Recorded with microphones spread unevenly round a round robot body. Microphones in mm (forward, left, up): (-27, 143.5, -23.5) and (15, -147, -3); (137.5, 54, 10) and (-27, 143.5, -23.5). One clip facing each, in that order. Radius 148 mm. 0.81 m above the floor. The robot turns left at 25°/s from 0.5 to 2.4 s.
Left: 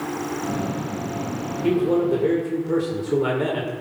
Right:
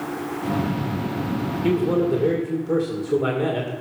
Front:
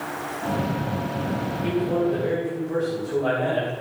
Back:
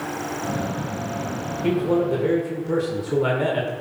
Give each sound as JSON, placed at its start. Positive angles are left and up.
{"t": 1.6, "sound": "a man speaking", "azimuth_deg": -160, "distance_m": 2.5}